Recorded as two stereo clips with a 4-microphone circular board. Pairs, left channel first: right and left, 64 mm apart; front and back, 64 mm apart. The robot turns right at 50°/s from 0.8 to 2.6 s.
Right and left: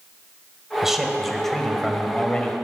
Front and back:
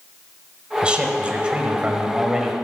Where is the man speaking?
155° left, 1.1 m; by 2.5 s 115° right, 1.1 m.